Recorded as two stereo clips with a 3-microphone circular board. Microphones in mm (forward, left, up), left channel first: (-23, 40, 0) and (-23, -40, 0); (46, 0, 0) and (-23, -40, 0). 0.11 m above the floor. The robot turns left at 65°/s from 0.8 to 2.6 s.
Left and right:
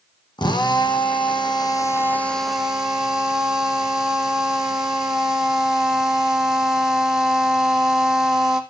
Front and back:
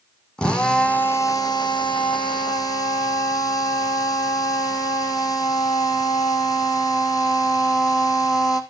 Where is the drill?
110° left, 2 m; by 8.6 s 5° right, 2 m.